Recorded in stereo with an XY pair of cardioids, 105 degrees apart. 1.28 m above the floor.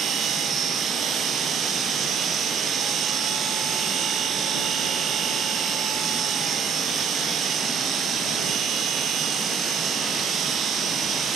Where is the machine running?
60° right.